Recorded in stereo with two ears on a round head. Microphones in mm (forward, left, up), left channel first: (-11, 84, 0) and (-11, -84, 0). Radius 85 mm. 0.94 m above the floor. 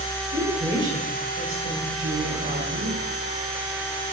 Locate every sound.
0.3 s a woman speaking: 70° right (ahead or behind), 6 m; by 3.0 s 65° right (ahead or behind), 5 m